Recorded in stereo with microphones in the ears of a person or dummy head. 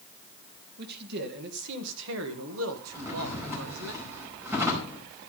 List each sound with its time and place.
0.8 s a man speaking: 55° right (ahead or behind), 2 m; by 3.9 s 75° right (ahead or behind), 2.0 m
2.9 s a drawer: 10° right (ahead or behind), 5 m